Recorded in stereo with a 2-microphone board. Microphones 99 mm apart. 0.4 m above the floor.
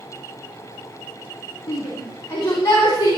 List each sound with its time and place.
1.7 s a shout: 30° left (ahead or behind), 4.5 m; by 3.2 s 45° left (ahead or behind), 4 m